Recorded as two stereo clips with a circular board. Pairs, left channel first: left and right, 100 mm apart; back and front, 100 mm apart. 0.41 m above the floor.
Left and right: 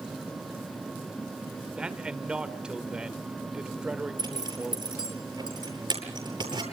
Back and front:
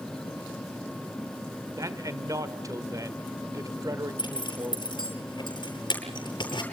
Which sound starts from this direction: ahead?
A man speaking, at 1.8 s.